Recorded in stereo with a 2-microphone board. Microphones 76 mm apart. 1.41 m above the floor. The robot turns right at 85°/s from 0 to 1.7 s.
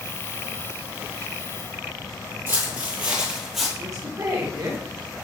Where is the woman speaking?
45° right (ahead or behind), 1.5 m.